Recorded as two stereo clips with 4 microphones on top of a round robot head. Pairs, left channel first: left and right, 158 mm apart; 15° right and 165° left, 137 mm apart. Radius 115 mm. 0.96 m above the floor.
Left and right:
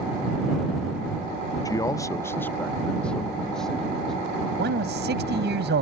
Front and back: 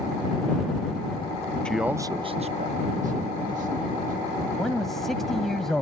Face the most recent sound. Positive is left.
turn(degrees=-100)